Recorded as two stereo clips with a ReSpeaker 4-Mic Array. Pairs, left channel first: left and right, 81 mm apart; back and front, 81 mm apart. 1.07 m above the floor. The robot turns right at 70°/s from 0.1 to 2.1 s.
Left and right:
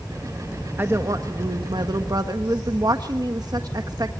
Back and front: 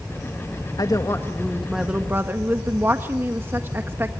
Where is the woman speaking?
150° right, 1.4 m; by 4.1 s 60° right, 1.4 m.